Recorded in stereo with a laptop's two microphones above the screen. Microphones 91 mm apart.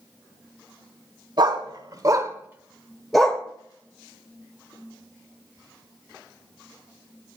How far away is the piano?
No piano in this recording.